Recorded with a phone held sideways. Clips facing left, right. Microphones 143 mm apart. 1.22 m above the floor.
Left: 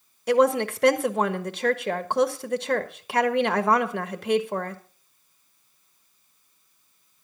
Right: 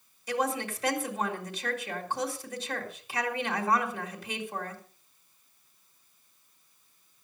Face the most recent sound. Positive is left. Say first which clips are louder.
# left 11 dB
turn(degrees=70)  # may be behind; listen again after turning